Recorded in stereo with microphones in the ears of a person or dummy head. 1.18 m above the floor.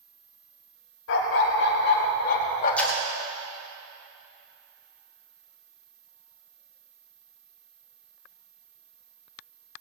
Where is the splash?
10° left (ahead or behind), 2.5 m.